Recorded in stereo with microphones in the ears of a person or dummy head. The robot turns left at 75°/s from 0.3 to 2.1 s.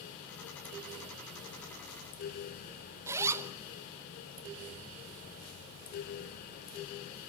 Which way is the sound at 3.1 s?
10° right (ahead or behind).